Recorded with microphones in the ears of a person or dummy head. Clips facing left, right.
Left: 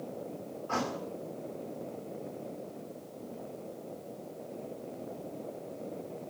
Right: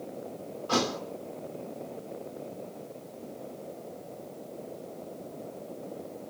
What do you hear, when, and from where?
0.7 s a thud: 55° right (ahead or behind), 2 m